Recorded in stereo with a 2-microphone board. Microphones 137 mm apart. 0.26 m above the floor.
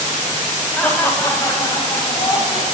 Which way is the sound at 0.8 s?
10° left (ahead or behind).